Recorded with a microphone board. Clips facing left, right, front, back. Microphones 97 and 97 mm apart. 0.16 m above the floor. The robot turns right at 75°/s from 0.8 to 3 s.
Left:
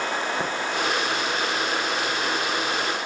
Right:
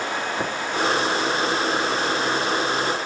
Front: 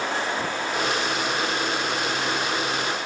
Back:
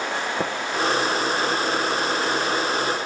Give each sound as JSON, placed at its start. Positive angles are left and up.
{"t": 0.4, "sound": "tapping", "azimuth_deg": 180, "distance_m": 3.0}